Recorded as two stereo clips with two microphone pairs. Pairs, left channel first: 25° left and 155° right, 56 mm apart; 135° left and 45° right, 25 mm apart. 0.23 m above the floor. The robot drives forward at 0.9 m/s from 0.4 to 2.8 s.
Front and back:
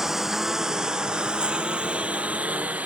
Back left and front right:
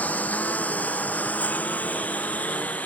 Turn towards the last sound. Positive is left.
turn(degrees=145)